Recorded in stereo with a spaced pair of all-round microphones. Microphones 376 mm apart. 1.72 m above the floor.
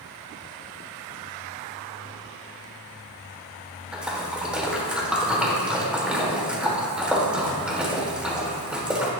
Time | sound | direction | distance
3.9 | a splash | 5° right (ahead or behind) | 1.6 m